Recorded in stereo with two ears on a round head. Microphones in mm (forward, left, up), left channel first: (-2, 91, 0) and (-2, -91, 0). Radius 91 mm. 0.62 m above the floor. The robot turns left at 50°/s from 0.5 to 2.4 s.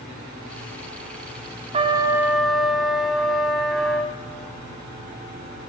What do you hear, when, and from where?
1.7 s a trumpet: 150° right, 1.2 m; by 4.1 s straight behind, 1.2 m